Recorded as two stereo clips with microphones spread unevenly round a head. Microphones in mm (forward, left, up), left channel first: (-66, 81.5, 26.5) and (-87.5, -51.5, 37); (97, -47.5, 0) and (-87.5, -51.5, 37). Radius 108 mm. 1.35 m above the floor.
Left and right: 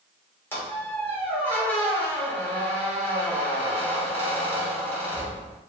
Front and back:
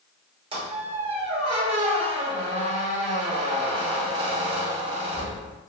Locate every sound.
0.5 s a squeak: 155° left, 1.2 m